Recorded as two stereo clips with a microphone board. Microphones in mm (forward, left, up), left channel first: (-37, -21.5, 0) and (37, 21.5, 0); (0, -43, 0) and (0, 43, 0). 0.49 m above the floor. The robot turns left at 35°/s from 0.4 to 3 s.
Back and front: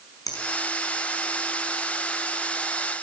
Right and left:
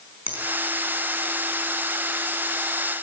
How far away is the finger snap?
About 5 m.